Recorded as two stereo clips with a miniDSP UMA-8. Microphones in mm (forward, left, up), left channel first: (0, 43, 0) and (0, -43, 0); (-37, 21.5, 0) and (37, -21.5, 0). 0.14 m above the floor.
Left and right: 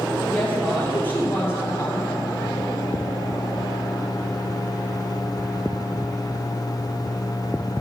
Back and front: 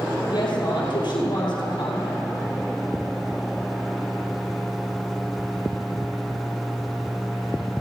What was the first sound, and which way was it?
A woman speaking, 165° left.